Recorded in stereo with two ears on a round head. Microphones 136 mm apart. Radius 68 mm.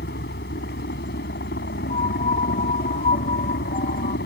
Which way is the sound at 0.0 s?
70° left (ahead or behind).